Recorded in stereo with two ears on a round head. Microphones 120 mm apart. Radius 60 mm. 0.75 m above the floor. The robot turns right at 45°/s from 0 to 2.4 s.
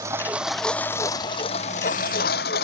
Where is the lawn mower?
25° right; by 2.6 s 85° left.